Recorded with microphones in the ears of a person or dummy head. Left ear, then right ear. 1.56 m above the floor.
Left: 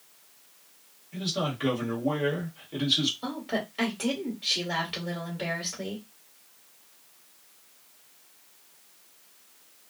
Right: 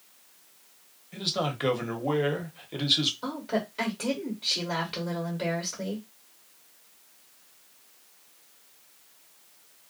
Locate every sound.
1.1 s a man speaking: 30° right (ahead or behind), 0.9 m
3.2 s a woman speaking: centre (ahead or behind), 1.1 m